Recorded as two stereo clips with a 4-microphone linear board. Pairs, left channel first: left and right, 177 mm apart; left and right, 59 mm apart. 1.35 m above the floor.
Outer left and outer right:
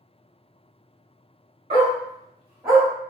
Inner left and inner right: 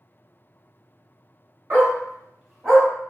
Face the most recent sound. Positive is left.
turn(degrees=5)  # may be behind; listen again after turning